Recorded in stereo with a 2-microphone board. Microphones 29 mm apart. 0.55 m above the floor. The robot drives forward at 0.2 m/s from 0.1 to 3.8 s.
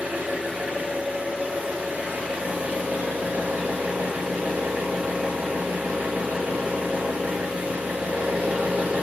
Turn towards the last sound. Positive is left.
turn(degrees=-75)  # may be behind; listen again after turning